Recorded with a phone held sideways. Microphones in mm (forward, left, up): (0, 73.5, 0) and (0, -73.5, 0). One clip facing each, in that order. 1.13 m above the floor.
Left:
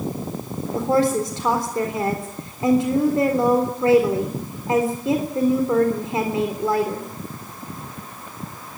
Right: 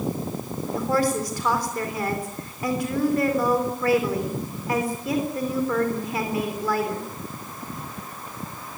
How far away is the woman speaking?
About 3.5 m.